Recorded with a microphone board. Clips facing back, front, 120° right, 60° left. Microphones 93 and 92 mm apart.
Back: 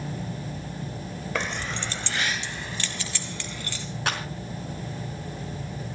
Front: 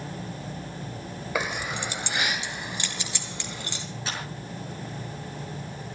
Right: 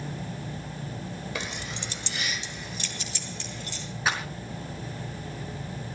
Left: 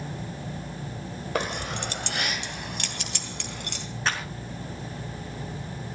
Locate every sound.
1.4 s keys jangling: 80° left, 1.2 m; by 3.9 s 70° left, 3.5 m
4.1 s a clap: 155° left, 5 m